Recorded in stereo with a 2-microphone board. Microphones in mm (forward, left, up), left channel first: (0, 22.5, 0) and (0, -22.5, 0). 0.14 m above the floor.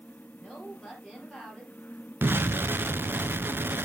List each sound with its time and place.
0.4 s a woman speaking: 20° right (ahead or behind), 3 m
2.2 s an explosion: 55° right (ahead or behind), 0.5 m